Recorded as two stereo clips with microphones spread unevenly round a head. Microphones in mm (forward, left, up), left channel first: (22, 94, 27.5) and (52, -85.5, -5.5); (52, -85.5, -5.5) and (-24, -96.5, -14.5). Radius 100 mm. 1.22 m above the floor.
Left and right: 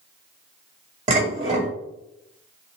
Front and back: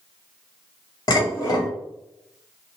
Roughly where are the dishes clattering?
Ahead right.